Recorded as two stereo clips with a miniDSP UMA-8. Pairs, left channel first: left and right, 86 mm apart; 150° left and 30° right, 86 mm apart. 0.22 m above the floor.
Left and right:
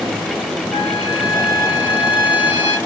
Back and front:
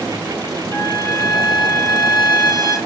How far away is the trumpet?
About 3.5 m.